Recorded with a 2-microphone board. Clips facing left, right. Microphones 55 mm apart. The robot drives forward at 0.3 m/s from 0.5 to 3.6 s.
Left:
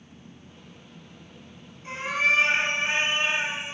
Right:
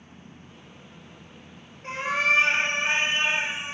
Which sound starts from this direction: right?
A cat meowing, at 1.8 s.